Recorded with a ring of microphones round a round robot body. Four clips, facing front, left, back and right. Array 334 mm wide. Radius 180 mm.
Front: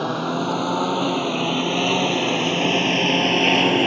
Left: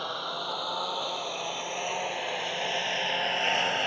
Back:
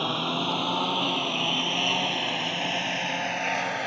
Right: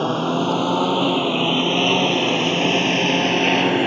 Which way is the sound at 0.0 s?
80° right.